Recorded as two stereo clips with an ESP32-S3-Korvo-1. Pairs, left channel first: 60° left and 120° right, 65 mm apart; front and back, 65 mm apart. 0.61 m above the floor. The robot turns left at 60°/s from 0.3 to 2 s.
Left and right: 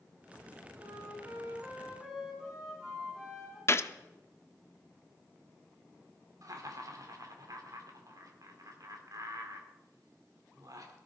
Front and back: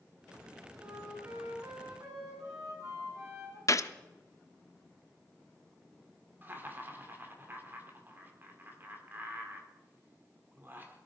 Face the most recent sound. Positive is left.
turn(degrees=-125)